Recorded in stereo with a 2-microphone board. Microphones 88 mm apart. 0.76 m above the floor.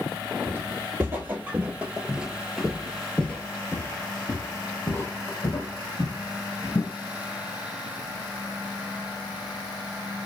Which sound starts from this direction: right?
Footsteps, at 0.5 s.